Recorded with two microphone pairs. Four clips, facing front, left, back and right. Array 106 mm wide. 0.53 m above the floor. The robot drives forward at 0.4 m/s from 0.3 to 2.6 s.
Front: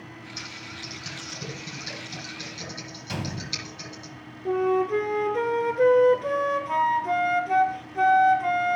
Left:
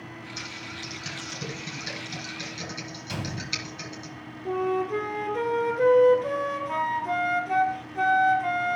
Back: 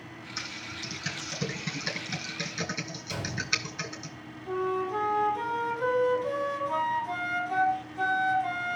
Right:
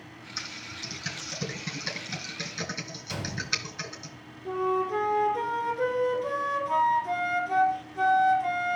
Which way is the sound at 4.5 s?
15° left.